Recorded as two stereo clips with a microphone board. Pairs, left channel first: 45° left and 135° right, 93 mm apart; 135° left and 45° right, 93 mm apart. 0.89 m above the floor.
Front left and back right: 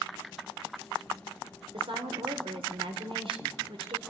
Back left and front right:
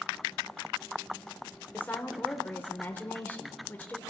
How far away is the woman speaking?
About 2.5 m.